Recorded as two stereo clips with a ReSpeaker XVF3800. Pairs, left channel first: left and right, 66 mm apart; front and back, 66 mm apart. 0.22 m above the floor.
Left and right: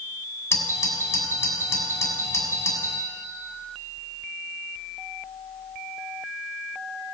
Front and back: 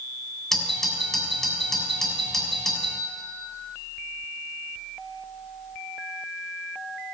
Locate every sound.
0.5 s a doorbell: 80° left, 2.5 m